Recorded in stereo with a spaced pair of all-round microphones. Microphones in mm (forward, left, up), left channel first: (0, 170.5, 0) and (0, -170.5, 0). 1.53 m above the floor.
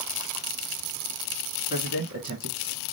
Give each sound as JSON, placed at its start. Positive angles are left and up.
{"t": 1.7, "sound": "a man speaking", "side_deg": -50, "distance_m": 1.9}